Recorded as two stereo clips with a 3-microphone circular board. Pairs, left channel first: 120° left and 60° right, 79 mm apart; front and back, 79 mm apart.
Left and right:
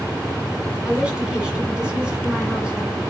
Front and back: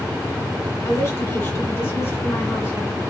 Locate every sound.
0.8 s a woman speaking: 10° left, 1.7 m